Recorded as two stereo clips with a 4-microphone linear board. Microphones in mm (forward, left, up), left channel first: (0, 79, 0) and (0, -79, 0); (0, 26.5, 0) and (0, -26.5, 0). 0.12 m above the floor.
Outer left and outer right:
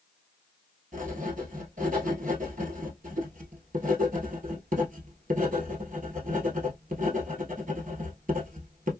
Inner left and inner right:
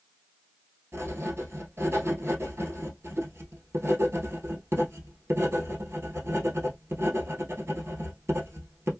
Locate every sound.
0.9 s writing: 60° right (ahead or behind), 1.1 m